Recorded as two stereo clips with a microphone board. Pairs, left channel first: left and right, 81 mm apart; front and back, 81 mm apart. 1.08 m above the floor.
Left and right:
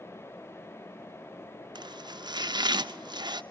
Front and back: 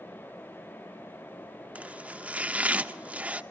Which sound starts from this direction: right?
Chopping, at 1.8 s.